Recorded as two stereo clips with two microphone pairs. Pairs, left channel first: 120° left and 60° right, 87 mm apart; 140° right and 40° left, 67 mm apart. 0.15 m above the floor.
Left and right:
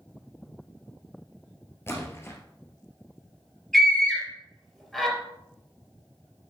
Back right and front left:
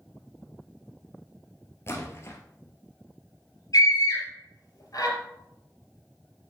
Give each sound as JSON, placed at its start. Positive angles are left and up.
{"t": 1.9, "sound": "a splash", "azimuth_deg": 180, "distance_m": 2.0}
{"t": 3.7, "sound": "a scream", "azimuth_deg": -155, "distance_m": 4.0}